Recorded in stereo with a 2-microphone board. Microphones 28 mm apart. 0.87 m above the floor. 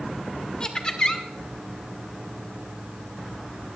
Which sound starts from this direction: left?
Laughter, at 0.6 s.